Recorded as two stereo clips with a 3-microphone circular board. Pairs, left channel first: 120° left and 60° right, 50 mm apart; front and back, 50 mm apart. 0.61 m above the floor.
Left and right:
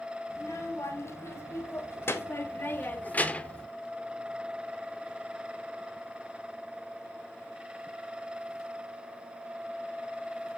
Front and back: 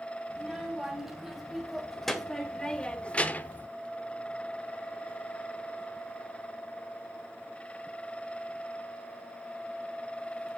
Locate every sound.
0.3 s a child speaking: 100° left, 2.5 m; by 3.7 s 50° left, 0.9 m